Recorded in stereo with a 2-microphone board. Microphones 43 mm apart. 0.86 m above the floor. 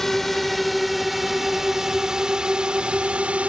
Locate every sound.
0.0 s a drone: 5° left (ahead or behind); by 3.5 s 30° right (ahead or behind)